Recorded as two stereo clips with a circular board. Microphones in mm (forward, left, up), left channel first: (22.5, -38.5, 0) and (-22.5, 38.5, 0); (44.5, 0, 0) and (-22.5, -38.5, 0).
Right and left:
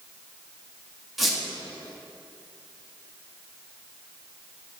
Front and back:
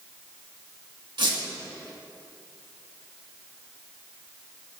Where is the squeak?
150° right, 1.4 m.